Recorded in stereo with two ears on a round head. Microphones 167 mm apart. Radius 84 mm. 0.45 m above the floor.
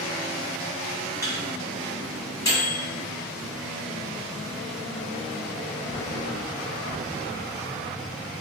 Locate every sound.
1.2 s a microwave: 15° left (ahead or behind), 0.8 m